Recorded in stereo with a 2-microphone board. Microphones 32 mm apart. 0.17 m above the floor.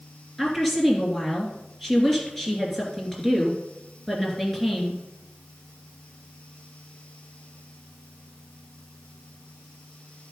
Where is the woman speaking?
10° left (ahead or behind), 3 m.